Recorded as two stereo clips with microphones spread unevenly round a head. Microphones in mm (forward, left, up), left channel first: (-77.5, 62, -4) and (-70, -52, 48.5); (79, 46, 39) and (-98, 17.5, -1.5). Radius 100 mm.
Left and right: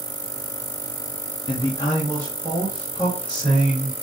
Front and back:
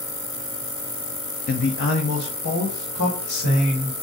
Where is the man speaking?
60° left, 0.6 m; by 3.9 s 5° left, 3 m.